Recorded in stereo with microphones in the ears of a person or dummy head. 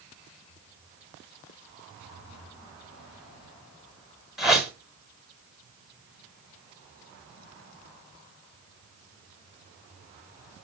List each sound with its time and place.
4.4 s a whoosh: centre (ahead or behind), 1.2 m